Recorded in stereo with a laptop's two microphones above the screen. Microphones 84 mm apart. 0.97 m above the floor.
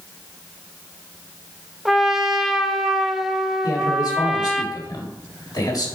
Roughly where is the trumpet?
Centre.